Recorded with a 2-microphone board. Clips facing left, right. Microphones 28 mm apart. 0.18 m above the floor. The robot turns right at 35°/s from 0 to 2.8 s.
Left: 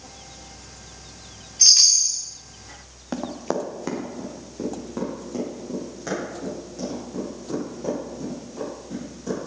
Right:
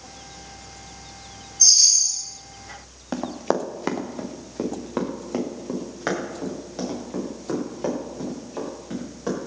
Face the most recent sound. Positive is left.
turn(degrees=-55)  # may be behind; listen again after turning